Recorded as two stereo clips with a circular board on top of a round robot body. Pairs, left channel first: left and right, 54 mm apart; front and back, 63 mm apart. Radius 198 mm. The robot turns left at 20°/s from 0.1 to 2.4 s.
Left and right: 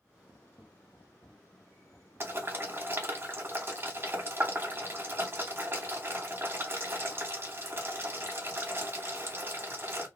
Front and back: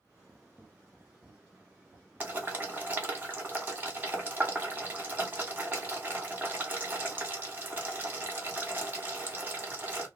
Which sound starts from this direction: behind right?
Boiling, at 2.2 s.